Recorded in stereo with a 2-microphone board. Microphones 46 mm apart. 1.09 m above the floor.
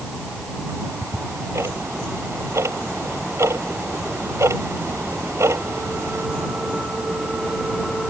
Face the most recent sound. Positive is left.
turn(degrees=-85)